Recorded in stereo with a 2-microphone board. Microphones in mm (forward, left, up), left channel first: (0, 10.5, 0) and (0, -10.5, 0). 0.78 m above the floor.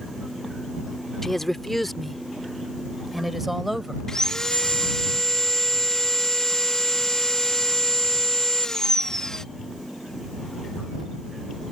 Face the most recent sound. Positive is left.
turn(degrees=25)  # may be behind; listen again after turning